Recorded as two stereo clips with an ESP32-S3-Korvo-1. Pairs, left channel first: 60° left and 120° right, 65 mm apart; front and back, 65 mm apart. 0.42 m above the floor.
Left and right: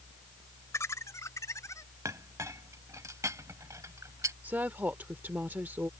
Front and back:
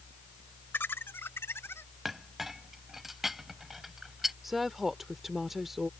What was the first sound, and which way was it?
Laughter, 45° left.